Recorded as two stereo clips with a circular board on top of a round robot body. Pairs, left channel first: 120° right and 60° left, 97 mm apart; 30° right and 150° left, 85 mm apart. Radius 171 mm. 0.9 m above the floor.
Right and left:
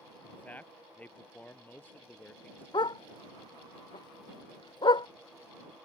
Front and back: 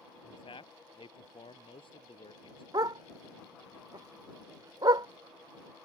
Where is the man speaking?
45° right.